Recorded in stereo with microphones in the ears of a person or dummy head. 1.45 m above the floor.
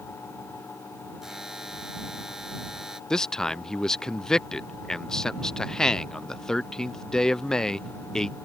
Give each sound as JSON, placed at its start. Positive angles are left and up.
{"t": 1.2, "sound": "a buzzer", "side_deg": 0}
{"t": 3.1, "sound": "a man speaking", "side_deg": 5}